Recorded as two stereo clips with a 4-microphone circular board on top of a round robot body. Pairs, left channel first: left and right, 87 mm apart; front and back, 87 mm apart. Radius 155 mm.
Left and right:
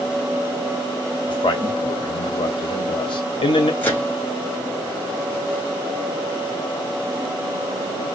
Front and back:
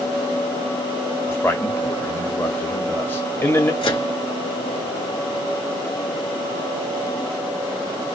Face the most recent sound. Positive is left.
turn(degrees=20)